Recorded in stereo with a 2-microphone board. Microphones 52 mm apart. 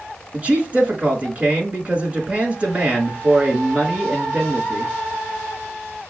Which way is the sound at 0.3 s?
25° right (ahead or behind).